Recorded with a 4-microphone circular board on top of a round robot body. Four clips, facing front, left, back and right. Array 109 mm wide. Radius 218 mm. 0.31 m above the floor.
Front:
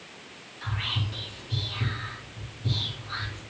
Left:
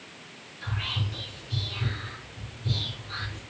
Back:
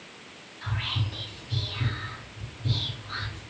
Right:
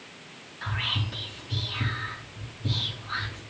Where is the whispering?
95° right, 3 m.